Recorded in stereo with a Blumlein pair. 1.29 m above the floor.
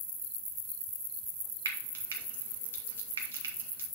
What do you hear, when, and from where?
1.6 s frying: 65° right, 1.6 m